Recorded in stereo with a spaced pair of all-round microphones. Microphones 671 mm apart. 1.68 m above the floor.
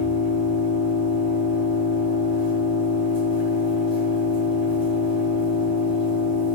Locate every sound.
0.0 s an engine running: 40° left (ahead or behind), 2 m